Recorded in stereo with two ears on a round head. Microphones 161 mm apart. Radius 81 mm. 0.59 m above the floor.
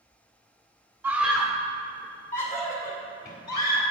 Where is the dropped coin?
No dropped coin in this recording.